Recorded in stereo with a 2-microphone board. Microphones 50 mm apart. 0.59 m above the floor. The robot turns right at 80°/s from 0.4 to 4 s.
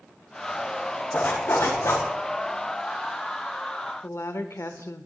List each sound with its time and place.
1.1 s a zipper: 40° left, 4.5 m; by 2.0 s 110° left, 4.5 m
4.0 s a woman speaking: 65° left (ahead or behind), 1.3 m